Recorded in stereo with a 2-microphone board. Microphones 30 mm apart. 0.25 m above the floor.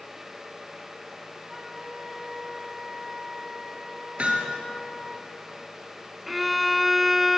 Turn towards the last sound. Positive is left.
turn(degrees=-5)  # may be behind; listen again after turning